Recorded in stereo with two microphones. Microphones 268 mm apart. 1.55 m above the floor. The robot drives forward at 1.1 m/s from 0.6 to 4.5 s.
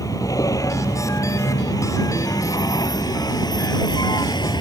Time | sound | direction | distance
0.0 | a vehicle | 10° left (ahead or behind) | ?